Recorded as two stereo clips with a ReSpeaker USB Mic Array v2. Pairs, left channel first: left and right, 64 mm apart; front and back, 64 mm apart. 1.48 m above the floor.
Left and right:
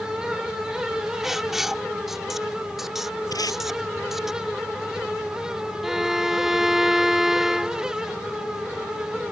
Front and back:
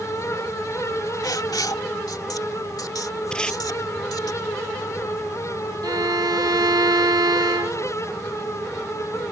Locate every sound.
1.2 s writing: 5° right
3.3 s tape being pulled: 75° left
5.8 s a violin: 175° right